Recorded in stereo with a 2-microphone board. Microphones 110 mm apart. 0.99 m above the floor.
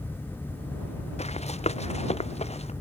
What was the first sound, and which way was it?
Running footsteps, 80° left.